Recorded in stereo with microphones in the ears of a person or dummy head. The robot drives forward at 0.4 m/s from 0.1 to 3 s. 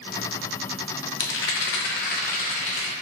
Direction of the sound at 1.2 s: 60° left (ahead or behind).